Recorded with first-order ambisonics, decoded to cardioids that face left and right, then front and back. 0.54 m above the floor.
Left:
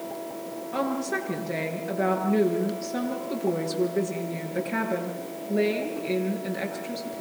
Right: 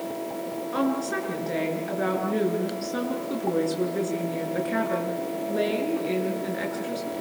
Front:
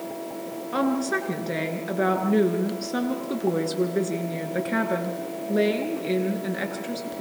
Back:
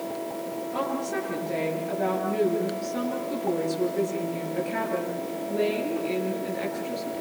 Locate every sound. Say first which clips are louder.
0.7 s a woman speaking: even, front 5 dB; 20° right, 9 m